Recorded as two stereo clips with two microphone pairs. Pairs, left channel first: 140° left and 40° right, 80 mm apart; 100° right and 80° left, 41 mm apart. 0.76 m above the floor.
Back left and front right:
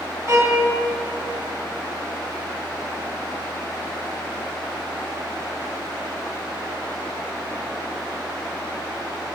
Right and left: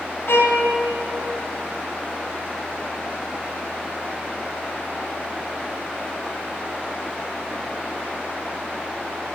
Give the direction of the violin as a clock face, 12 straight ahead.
3 o'clock.